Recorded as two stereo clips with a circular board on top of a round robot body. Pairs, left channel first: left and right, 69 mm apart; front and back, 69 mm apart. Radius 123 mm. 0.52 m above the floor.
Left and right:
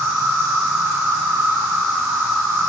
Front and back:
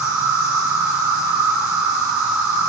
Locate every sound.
0.0 s an insect: 160° right, 1.2 m